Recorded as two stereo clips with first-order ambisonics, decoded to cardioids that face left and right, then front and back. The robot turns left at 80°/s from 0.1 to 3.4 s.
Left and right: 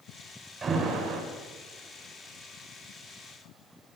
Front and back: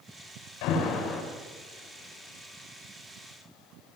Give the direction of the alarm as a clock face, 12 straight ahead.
1 o'clock.